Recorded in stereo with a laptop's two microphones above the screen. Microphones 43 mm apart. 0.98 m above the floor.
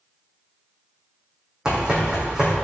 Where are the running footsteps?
15° right (ahead or behind), 3 m.